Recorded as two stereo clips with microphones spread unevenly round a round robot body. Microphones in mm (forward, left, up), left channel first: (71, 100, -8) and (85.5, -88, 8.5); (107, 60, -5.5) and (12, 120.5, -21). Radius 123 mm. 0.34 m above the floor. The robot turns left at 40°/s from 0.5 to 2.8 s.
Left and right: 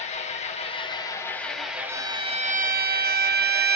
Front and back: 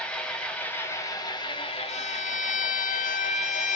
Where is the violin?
10° right, 0.7 m; by 3.8 s 45° right, 0.7 m.